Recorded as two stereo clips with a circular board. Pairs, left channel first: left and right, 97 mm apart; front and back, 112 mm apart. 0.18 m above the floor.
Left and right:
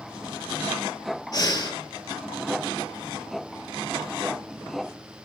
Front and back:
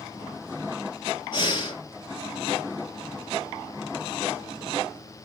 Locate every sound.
1.3 s breathing: 40° left, 1.4 m